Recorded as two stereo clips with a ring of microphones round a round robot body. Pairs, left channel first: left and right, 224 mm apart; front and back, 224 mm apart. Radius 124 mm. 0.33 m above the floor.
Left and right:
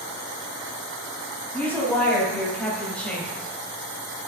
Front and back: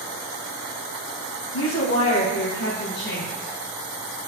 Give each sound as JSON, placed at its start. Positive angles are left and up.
{"t": 1.5, "sound": "a woman speaking", "azimuth_deg": 10, "distance_m": 3.0}